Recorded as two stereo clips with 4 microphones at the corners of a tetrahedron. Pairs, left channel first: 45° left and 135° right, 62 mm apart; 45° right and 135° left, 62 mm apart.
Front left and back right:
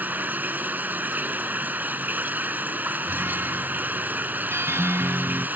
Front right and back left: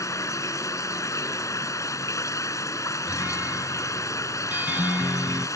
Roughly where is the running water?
Right.